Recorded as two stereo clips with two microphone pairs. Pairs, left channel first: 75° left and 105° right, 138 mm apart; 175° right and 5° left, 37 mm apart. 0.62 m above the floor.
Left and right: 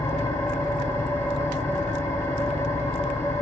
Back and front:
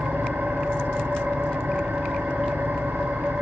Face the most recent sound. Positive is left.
turn(degrees=5)